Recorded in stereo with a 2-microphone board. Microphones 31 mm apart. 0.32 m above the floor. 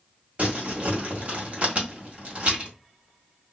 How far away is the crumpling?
About 1.7 m.